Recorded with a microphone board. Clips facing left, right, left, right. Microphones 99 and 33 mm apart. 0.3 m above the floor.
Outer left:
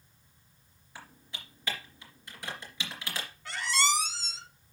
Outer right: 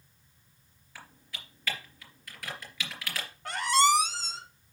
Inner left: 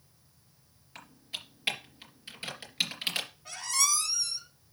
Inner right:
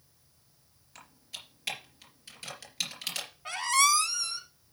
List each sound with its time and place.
0.9 s typing on a keyboard: 25° left (ahead or behind), 3.5 m
3.5 s a squeak: 55° right (ahead or behind), 1.1 m